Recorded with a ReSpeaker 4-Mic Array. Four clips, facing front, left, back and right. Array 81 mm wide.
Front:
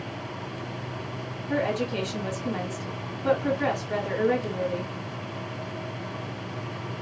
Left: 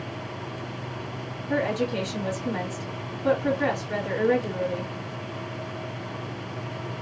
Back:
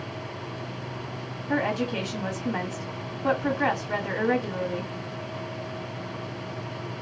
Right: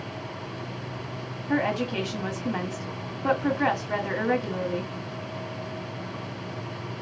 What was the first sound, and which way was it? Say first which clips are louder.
A woman speaking: even, even; 115° right.